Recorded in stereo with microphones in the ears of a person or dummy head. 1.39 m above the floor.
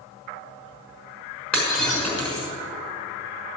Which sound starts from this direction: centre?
Breaking glass, at 1.5 s.